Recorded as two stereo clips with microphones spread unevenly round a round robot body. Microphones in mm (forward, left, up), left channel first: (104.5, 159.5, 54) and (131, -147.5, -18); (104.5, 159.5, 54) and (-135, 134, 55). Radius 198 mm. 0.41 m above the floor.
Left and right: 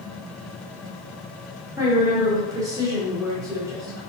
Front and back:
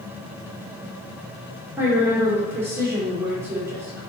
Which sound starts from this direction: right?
A woman speaking, at 1.8 s.